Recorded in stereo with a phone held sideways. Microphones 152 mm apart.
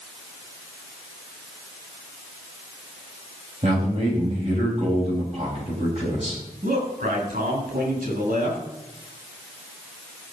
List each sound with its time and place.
3.6 s a man speaking: 50° right (ahead or behind), 4 m
6.6 s a man speaking: 85° right, 8 m